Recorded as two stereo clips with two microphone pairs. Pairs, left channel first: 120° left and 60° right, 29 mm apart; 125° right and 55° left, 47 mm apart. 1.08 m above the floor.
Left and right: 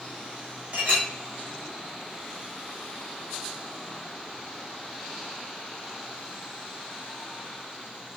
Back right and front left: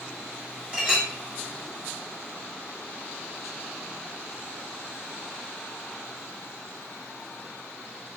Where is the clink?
20° right, 1.5 m.